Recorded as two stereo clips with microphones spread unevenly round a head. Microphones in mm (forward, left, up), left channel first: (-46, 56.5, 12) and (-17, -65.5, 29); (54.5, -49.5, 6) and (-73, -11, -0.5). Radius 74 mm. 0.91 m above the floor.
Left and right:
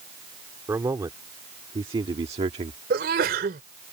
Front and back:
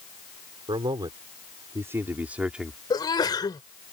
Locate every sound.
0.7 s a man speaking: 145° right; by 2.8 s 110° right
2.9 s a sneeze: 75° right